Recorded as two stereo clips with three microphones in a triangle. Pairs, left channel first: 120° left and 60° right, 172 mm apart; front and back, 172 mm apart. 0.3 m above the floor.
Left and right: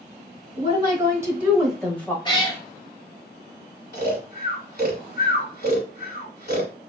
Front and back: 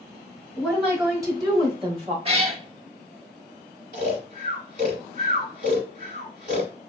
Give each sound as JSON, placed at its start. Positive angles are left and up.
{"t": 0.6, "sound": "a woman speaking", "azimuth_deg": -95, "distance_m": 1.2}
{"t": 2.2, "sound": "a cat meowing", "azimuth_deg": 160, "distance_m": 0.7}
{"t": 3.9, "sound": "snoring", "azimuth_deg": 145, "distance_m": 1.2}